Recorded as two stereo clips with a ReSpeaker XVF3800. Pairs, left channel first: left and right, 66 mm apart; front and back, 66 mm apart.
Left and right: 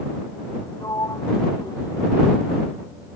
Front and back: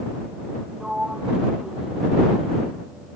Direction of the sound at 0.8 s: 100° left.